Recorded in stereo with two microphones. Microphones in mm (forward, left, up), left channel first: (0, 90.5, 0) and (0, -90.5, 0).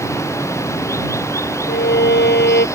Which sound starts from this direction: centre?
Running water, at 0.0 s.